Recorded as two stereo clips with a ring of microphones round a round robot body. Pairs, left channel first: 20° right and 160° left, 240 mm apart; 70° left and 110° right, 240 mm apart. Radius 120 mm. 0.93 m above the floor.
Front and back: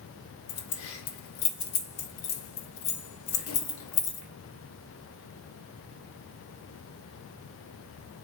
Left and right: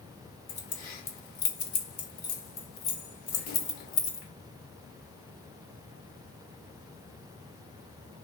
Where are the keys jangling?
10° left, 1.0 m.